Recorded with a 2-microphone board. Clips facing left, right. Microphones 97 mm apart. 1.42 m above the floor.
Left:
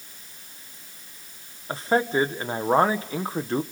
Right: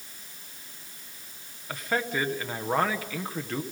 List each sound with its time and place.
1.7 s a man speaking: 30° left (ahead or behind), 1.3 m